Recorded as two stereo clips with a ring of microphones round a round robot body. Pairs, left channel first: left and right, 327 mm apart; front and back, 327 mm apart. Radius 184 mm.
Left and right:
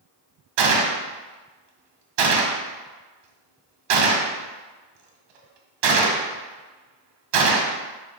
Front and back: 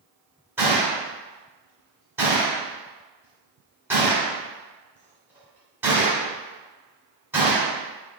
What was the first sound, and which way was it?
A gunshot, 95° right.